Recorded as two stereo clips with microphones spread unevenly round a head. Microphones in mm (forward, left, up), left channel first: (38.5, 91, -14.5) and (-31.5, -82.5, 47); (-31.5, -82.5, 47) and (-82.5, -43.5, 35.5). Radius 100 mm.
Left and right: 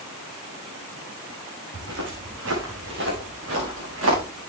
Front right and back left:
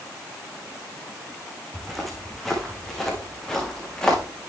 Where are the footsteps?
125° right, 4.5 m; by 4.2 s 115° right, 5.5 m.